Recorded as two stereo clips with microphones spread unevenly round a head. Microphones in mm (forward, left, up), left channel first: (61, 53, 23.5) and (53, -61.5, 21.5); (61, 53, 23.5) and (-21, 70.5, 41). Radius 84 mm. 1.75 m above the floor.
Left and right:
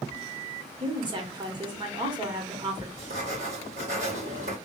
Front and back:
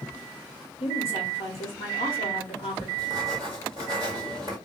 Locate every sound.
0.8 s a woman speaking: 45° right, 1.5 m
3.0 s writing: 95° right, 1.8 m